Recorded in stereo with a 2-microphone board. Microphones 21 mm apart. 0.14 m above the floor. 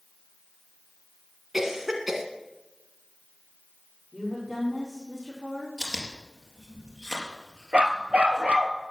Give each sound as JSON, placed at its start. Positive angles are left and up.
{"t": 1.5, "sound": "a cough", "side_deg": -20, "distance_m": 1.5}
{"t": 4.1, "sound": "a woman speaking", "side_deg": 10, "distance_m": 6.5}
{"t": 5.8, "sound": "chewing", "side_deg": -10, "distance_m": 3.5}
{"t": 7.7, "sound": "a dog barking", "side_deg": -65, "distance_m": 1.3}